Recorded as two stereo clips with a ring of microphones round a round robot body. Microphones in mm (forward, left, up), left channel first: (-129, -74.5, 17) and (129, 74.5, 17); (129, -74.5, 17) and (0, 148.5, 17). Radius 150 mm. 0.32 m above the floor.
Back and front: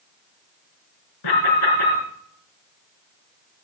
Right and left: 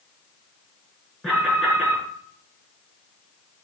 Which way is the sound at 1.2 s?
150° right.